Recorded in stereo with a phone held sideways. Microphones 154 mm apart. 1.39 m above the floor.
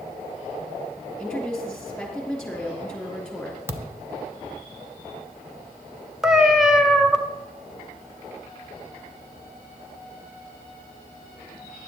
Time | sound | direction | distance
1.2 | a woman speaking | 5° left (ahead or behind) | 3 m
3.7 | a thud | 15° right (ahead or behind) | 0.7 m
6.2 | a cat meowing | 5° right (ahead or behind) | 1.2 m